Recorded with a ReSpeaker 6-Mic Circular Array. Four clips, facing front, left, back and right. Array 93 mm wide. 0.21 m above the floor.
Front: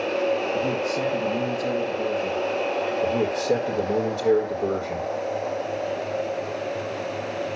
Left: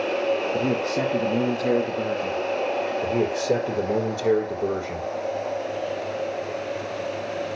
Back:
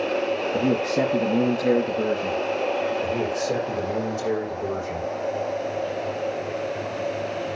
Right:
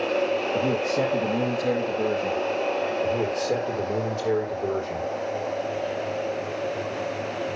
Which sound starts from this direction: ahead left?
A man speaking, at 3.0 s.